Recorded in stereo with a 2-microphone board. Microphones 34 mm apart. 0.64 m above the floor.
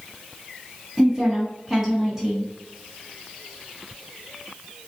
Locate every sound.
1.0 s a woman speaking: 20° right (ahead or behind), 1.1 m